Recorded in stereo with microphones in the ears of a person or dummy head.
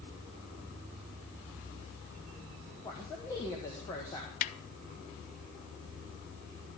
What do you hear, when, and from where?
2.8 s a man speaking: 20° left (ahead or behind), 1.7 m
4.4 s a snare drum: 45° left (ahead or behind), 0.6 m